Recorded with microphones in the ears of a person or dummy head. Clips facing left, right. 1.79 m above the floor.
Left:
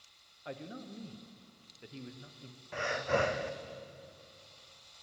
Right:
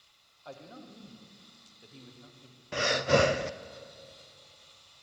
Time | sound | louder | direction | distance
0.5 | a man speaking | left 3 dB | 25° left (ahead or behind) | 1.4 m
2.7 | breathing | right 6 dB | 55° right (ahead or behind) | 0.5 m